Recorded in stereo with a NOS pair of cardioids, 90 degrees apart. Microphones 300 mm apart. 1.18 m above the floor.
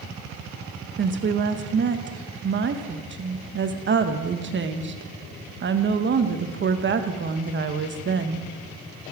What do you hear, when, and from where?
1.0 s a woman speaking: 40° right, 1.1 m